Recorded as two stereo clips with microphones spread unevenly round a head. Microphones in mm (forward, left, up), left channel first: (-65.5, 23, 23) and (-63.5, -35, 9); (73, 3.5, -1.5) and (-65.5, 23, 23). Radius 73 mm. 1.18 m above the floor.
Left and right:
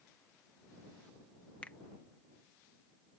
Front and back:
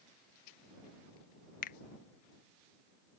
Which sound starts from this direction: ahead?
A finger snap, at 1.6 s.